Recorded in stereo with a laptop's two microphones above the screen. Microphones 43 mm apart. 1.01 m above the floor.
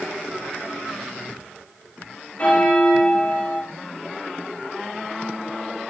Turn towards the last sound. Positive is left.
turn(degrees=35)  # may be behind; listen again after turning